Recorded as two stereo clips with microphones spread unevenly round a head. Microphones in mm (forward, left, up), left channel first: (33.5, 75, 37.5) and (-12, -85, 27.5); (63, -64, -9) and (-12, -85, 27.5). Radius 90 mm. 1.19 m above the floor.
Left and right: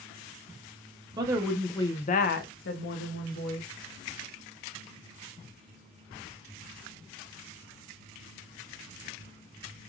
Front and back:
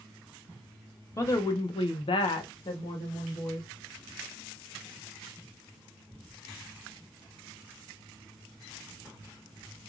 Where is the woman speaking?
40° right, 0.6 m; by 3.7 s 70° left, 1.3 m.